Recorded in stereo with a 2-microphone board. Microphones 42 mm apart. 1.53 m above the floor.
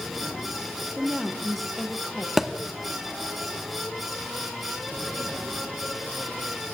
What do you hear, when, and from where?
1.0 s a woman speaking: 5° left (ahead or behind), 1.2 m
2.4 s a thud: 10° right (ahead or behind), 1.0 m